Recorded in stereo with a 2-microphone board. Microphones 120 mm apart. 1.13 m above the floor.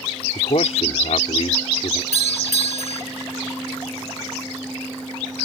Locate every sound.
0.3 s a man speaking: 65° left (ahead or behind)
2.1 s a doorbell: 85° right